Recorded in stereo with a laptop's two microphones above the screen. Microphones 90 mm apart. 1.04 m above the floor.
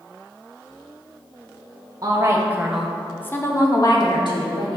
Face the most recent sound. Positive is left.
turn(degrees=60)  # may be behind; listen again after turning